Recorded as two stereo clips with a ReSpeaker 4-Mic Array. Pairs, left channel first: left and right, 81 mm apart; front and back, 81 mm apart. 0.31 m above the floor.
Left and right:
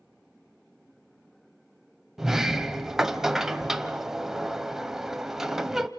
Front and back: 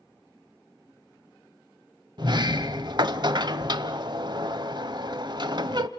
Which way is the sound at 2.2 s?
175° right.